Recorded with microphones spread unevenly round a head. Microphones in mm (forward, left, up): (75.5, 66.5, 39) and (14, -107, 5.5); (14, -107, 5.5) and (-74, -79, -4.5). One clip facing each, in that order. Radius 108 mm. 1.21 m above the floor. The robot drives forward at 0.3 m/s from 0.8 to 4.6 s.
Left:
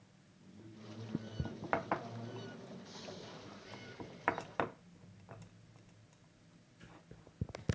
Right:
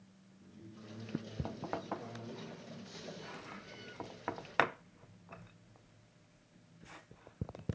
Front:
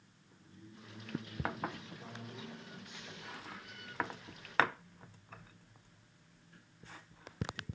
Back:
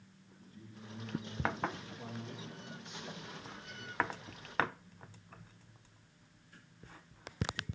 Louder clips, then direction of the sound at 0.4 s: Right 1 dB, back 2 dB; 155° left.